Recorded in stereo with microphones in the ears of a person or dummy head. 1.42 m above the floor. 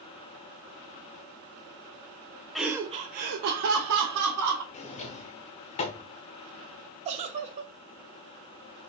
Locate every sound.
2.5 s laughter: centre (ahead or behind), 0.6 m; by 4.6 s 80° right, 1.6 m
4.7 s a drawer: 30° left (ahead or behind), 0.8 m
7.0 s a giggle: 35° right (ahead or behind), 0.6 m